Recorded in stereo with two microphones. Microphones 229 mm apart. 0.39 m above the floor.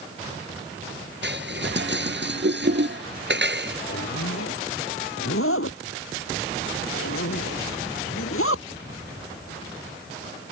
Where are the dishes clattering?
50° right (ahead or behind).